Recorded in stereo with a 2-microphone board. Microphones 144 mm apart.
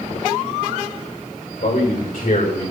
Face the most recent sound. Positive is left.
turn(degrees=65)  # may be behind; listen again after turning